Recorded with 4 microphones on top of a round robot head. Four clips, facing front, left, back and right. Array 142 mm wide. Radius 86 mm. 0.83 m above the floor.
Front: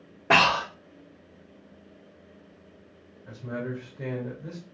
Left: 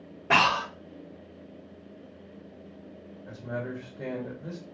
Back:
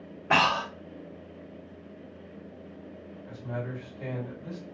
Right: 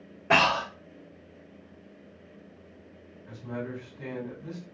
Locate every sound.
0.3 s breathing: 10° left, 1.6 m
3.3 s a man speaking: 50° left, 2.5 m